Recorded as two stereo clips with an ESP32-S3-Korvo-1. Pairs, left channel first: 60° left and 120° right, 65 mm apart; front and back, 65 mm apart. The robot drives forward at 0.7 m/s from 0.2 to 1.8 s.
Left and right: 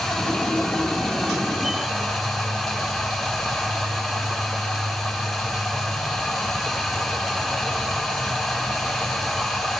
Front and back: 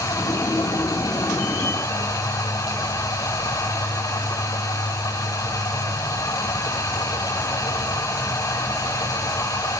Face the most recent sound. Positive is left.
turn(degrees=-35)